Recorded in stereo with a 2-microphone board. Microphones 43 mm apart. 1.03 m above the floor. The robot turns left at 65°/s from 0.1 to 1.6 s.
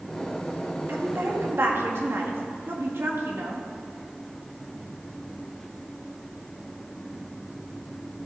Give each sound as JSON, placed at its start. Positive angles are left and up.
{"t": 0.9, "sound": "a woman speaking", "azimuth_deg": -60, "distance_m": 1.8}